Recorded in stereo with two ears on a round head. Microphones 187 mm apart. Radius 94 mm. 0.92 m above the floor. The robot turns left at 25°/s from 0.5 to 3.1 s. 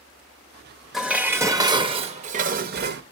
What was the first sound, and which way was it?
Dishes clattering, straight ahead.